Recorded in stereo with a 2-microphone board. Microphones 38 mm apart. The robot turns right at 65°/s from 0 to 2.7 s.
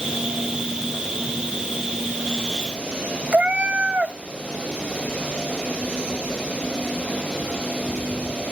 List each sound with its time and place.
3.3 s a cat meowing: 35° right (ahead or behind), 0.5 m